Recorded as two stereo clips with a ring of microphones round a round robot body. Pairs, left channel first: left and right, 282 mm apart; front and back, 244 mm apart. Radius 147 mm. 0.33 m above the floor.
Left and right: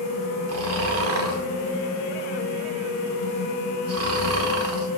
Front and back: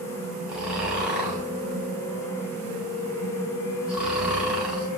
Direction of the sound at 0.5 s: 95° right.